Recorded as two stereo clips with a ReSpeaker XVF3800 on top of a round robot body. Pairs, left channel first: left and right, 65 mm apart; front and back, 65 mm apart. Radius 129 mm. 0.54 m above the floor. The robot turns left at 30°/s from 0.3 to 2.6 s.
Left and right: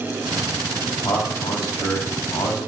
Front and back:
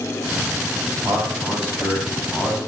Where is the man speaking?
130° left, 5 m; by 2.6 s 85° left, 5 m.